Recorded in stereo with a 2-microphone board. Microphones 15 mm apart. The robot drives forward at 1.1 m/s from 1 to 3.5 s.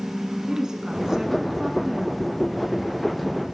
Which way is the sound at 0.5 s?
45° right (ahead or behind).